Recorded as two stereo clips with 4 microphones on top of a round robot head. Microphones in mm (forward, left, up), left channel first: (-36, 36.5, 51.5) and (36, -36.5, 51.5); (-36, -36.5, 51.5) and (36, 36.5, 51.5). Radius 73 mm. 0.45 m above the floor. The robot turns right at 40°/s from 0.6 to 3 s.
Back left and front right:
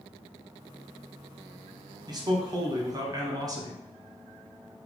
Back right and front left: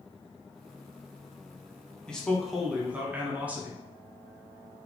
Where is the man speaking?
60° right, 0.9 m; by 3.8 s 25° right, 0.9 m.